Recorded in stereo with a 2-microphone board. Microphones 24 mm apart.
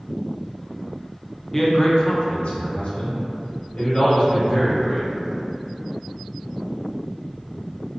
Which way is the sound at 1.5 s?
10° left (ahead or behind).